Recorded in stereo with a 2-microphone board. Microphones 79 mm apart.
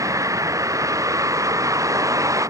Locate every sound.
0.0 s a vehicle: 40° right (ahead or behind)